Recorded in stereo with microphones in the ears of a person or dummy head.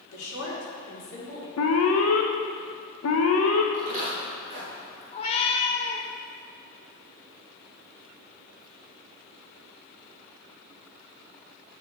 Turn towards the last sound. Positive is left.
turn(degrees=30)  # may be behind; listen again after turning